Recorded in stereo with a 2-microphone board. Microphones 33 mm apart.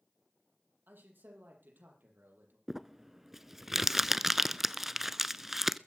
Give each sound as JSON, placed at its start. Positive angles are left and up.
{"t": 0.9, "sound": "a man speaking", "side_deg": -70, "distance_m": 7.0}
{"t": 2.7, "sound": "crumpling", "side_deg": -10, "distance_m": 0.5}